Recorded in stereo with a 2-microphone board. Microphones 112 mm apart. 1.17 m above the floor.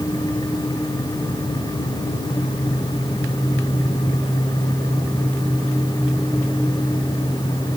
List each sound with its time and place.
Only background noise.